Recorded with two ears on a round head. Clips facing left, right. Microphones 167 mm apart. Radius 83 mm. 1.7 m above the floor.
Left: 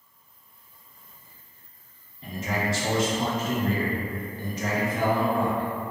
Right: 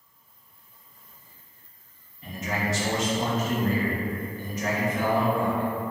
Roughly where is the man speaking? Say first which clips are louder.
Left 1 dB; left.